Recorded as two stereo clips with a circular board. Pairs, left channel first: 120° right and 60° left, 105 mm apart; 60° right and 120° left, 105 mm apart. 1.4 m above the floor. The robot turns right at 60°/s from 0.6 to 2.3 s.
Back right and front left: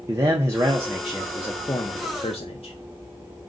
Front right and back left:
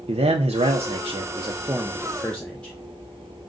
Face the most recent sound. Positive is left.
turn(degrees=-140)